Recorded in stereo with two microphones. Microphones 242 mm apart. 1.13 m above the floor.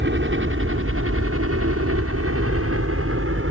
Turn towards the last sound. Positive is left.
turn(degrees=-60)  # may be behind; listen again after turning